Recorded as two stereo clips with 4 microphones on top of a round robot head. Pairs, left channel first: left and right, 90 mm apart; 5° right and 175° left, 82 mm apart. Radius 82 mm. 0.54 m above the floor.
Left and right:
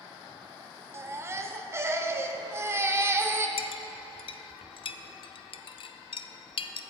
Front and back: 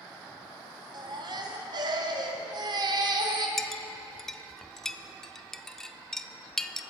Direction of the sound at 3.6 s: 80° left.